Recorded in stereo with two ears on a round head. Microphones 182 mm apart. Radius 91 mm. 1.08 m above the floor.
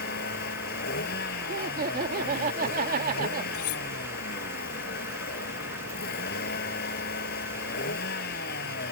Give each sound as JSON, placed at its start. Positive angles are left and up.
{"t": 0.0, "sound": "a vehicle", "side_deg": 50}
{"t": 1.5, "sound": "laughter", "side_deg": -45}
{"t": 3.5, "sound": "cutlery clinking", "side_deg": 75}